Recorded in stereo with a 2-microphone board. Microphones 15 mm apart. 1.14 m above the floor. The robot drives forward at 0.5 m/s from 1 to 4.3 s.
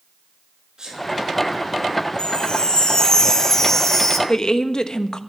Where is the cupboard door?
I don't hear a cupboard door.